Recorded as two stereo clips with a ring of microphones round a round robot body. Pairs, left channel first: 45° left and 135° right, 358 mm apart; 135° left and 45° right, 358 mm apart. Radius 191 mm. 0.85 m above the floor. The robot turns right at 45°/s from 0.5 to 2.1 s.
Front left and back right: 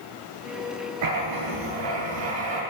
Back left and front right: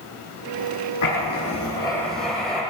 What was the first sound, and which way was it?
Writing, 175° left.